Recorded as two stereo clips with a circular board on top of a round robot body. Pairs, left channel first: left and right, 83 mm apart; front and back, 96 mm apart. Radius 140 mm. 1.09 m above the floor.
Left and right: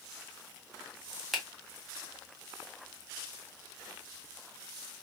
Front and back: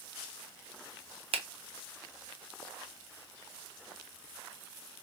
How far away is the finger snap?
About 0.7 m.